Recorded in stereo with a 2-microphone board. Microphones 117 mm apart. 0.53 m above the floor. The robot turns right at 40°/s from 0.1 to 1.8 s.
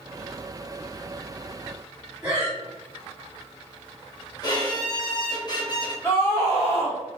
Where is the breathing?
15° right (ahead or behind), 1.7 m.